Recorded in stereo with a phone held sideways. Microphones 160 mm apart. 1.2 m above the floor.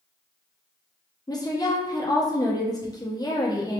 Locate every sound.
1.3 s a woman speaking: 25° left (ahead or behind), 0.8 m